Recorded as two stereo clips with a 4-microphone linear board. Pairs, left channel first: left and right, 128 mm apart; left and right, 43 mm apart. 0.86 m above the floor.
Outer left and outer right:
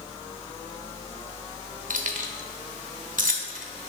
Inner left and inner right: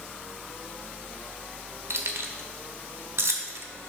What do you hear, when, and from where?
1.9 s keys jangling: 85° right, 0.8 m